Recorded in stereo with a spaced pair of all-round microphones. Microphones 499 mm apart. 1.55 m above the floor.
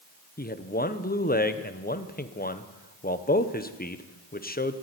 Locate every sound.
0.4 s a man speaking: 20° left (ahead or behind), 0.8 m